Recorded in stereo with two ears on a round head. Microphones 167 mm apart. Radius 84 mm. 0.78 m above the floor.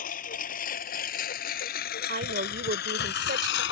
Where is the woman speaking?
50° right (ahead or behind).